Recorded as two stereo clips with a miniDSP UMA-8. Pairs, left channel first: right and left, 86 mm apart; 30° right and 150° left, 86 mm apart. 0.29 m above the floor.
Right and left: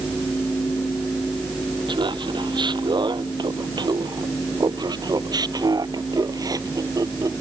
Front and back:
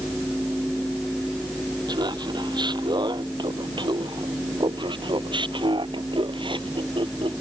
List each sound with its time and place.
1.9 s laughter: 120° left; by 7.4 s 140° left